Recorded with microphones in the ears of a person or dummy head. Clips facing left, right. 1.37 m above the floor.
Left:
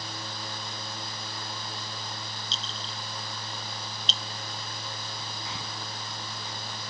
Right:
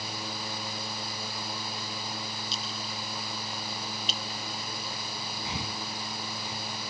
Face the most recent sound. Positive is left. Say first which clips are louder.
# right 3 dB
turn(degrees=-15)  # may be behind; listen again after turning